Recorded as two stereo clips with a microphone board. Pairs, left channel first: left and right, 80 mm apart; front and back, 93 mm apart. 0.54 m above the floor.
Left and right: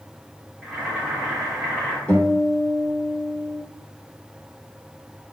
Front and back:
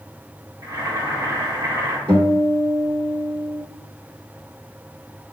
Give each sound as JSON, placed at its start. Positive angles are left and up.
{"t": 0.6, "sound": "boiling", "azimuth_deg": -165, "distance_m": 1.2}
{"t": 2.1, "sound": "a guitar", "azimuth_deg": 160, "distance_m": 1.4}